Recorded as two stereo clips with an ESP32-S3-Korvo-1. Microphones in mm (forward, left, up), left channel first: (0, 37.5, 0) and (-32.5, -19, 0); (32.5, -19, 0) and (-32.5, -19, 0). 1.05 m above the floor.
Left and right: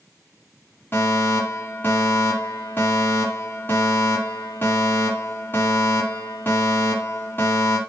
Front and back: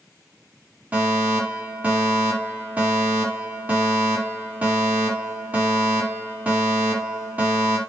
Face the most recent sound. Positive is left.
turn(degrees=115)